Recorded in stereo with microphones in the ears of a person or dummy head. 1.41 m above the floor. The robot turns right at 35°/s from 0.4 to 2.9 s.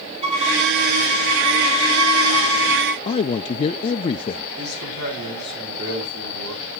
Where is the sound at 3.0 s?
30° left (ahead or behind), 0.5 m.